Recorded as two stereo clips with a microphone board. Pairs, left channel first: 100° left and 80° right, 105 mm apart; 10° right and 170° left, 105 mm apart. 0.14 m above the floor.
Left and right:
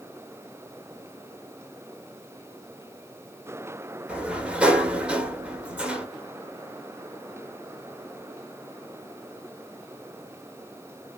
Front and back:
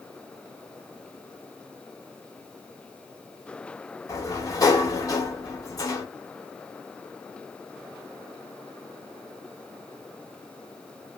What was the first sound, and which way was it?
A sliding door, 10° right.